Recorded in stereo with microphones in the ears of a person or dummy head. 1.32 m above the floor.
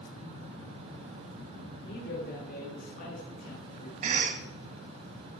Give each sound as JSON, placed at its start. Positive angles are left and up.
{"t": 1.9, "sound": "a man speaking", "side_deg": 65, "distance_m": 3.0}
{"t": 4.0, "sound": "a cough", "side_deg": -45, "distance_m": 1.2}